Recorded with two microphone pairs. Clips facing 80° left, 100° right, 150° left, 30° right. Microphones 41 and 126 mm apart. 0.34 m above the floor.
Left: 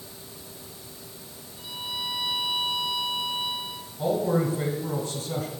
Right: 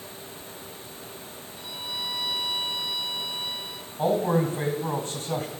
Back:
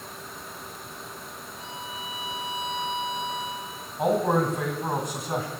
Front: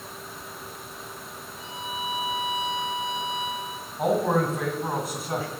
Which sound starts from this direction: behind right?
A man speaking, at 4.0 s.